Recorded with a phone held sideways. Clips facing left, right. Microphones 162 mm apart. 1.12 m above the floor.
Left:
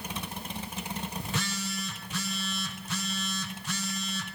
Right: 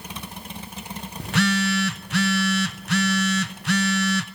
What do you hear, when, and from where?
1.2 s a phone buzzing: 75° right (ahead or behind), 0.6 m